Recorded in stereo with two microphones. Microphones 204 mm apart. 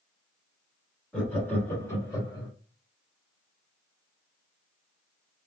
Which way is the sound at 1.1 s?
5° left (ahead or behind).